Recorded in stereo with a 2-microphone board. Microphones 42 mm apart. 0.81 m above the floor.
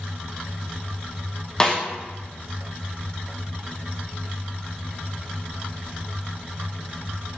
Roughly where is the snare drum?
Centre.